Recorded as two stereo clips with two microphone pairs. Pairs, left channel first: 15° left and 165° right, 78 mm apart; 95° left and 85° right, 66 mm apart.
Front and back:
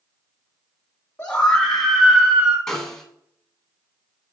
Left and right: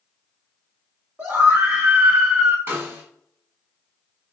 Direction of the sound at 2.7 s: 65° right.